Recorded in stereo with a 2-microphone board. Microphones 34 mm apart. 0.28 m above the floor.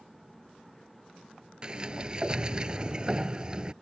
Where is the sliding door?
25° right (ahead or behind).